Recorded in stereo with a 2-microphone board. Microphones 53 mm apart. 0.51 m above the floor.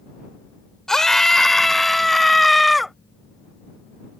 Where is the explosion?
No explosion in this recording.